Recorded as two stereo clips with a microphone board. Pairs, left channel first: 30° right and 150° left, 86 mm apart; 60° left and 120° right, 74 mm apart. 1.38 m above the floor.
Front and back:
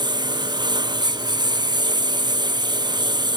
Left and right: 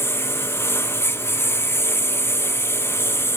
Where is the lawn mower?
115° left.